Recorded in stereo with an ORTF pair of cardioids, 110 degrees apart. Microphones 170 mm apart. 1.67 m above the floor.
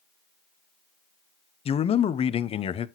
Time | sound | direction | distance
1.6 | a man speaking | 35° left | 0.5 m